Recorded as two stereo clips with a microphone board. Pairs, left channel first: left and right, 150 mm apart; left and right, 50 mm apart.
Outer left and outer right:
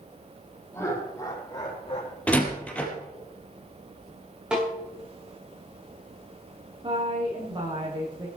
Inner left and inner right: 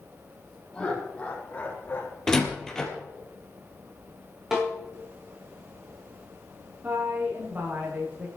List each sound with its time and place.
0.7 s laughter: 20° left (ahead or behind), 4.5 m; by 2.2 s 40° left (ahead or behind), 5 m
2.3 s a door slam: 10° left (ahead or behind), 3 m
4.5 s a snare drum: 5° right (ahead or behind), 9 m
6.8 s a woman speaking: 35° right (ahead or behind), 9 m